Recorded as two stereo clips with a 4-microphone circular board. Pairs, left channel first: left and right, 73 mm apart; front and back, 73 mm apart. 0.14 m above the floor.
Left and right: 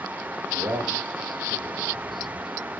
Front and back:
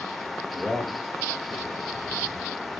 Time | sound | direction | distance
0.5 | a man speaking | 100° right | 4.5 m